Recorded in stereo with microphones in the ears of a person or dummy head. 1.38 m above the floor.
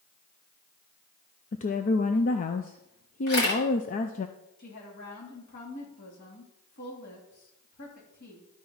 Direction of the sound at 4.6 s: 55° left (ahead or behind).